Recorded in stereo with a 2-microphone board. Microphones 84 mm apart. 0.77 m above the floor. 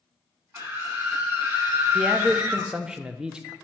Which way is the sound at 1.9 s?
10° right (ahead or behind).